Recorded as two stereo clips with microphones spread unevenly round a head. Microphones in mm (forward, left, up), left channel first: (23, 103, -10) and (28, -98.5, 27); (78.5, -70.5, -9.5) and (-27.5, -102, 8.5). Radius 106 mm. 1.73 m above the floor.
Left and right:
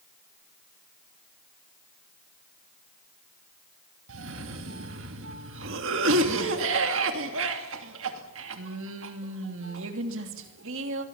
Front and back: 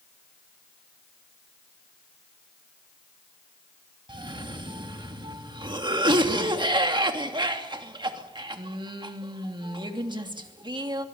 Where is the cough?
120° right, 3 m.